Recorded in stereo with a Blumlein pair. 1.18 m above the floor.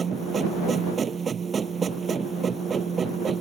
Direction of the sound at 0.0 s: 20° right.